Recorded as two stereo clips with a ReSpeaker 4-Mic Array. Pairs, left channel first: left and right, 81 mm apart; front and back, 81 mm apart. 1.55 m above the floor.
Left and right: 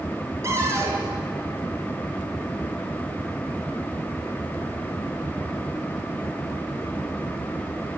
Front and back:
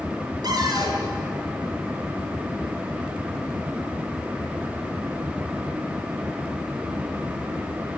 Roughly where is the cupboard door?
Behind right.